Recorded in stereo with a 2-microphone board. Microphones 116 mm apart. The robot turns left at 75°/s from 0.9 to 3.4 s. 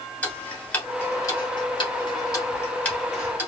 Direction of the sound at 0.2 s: 10° left (ahead or behind).